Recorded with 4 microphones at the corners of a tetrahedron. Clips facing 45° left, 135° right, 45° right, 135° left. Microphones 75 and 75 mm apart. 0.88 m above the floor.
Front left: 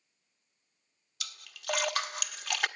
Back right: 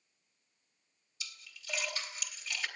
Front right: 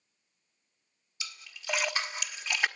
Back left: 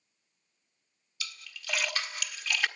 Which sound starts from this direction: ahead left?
A splash, at 1.2 s.